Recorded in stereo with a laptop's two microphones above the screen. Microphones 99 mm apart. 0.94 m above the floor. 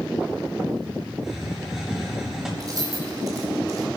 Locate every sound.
1.2 s a hiss: 5° right (ahead or behind), 4 m
2.6 s keys jangling: 40° right (ahead or behind), 3 m